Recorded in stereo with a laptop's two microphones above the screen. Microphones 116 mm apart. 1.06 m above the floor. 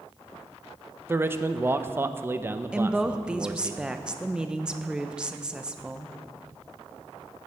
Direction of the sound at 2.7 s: 5° right (ahead or behind).